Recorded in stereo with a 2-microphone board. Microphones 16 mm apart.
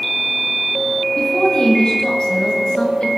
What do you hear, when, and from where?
1.2 s a woman speaking: 70° left (ahead or behind), 7.5 m; by 3.1 s 75° left (ahead or behind), 5.5 m